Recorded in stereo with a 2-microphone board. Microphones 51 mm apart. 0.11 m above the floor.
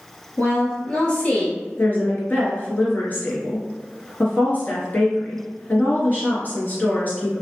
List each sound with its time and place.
0.4 s a woman speaking: 35° left (ahead or behind), 1.4 m; by 1.6 s 25° left (ahead or behind), 1.8 m
1.8 s a woman speaking: 40° left (ahead or behind), 1.4 m